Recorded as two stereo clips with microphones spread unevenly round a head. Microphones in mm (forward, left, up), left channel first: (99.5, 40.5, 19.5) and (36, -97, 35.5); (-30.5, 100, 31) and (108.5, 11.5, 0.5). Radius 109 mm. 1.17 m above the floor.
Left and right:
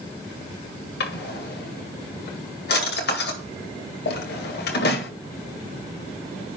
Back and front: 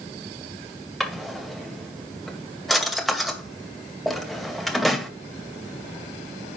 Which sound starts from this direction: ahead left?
A drawer, at 1.0 s.